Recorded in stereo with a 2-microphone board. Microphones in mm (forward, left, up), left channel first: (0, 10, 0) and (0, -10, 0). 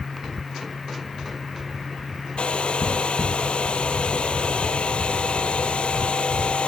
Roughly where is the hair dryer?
Left.